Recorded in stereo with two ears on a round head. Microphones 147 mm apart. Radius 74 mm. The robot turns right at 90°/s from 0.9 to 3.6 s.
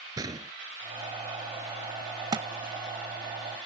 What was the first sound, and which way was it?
A gunshot, 20° right (ahead or behind).